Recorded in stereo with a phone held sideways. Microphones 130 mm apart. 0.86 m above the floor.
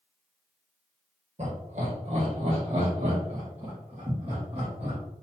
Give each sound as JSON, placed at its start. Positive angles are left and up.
{"t": 1.4, "sound": "laughter", "side_deg": -55, "distance_m": 1.7}